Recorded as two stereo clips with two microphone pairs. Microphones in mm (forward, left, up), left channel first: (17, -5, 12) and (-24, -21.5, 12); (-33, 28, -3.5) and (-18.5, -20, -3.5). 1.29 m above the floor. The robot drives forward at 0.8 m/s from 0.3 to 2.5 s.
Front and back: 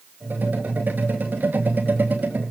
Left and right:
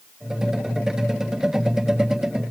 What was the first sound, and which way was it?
Only background noise.